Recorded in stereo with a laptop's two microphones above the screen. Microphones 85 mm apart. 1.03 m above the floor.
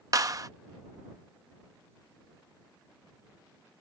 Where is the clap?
45° right (ahead or behind).